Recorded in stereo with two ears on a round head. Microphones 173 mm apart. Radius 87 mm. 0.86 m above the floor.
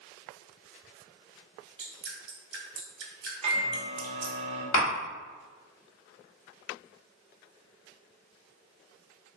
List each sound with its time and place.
1.8 s dripping: 60° right (ahead or behind), 0.8 m
3.4 s a microwave: 35° right (ahead or behind), 0.7 m
4.7 s tapping: 85° left, 1.2 m